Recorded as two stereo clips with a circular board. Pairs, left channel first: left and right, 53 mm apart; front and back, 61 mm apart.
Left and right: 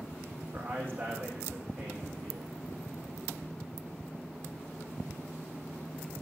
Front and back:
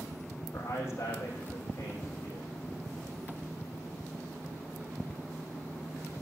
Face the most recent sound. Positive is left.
turn(degrees=-45)